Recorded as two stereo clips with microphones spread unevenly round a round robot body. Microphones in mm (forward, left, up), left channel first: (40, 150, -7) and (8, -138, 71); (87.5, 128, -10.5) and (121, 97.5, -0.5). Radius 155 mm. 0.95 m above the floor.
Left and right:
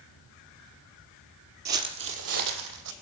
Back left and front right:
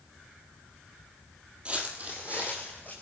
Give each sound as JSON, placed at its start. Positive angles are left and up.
{"t": 1.6, "sound": "footsteps", "azimuth_deg": -90, "distance_m": 1.3}